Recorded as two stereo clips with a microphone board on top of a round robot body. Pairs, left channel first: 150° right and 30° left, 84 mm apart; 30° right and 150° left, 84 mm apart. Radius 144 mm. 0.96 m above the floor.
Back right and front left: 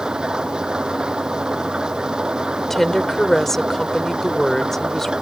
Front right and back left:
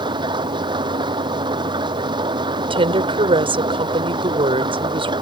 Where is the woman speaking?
125° left.